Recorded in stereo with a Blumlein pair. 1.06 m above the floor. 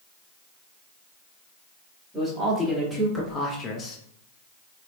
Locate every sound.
2.1 s a man speaking: straight ahead, 1.5 m; by 4.0 s 35° left, 0.6 m